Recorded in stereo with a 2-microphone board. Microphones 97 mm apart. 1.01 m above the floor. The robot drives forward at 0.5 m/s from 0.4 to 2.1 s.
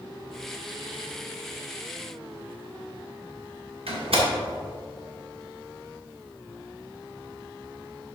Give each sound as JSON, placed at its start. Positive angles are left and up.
{"t": 3.9, "sound": "a door slam", "side_deg": -75, "distance_m": 1.6}